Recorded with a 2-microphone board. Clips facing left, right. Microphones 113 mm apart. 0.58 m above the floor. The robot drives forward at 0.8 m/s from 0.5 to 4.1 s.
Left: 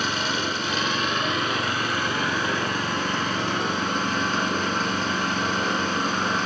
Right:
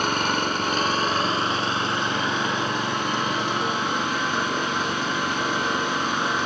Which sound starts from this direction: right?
An engine running, at 0.0 s.